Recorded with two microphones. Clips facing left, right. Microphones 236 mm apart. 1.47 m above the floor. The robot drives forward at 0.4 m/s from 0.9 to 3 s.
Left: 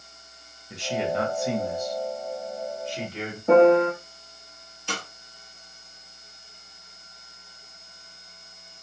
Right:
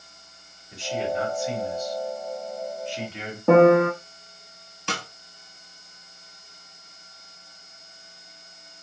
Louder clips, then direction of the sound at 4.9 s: Right 2 dB; 70° right (ahead or behind).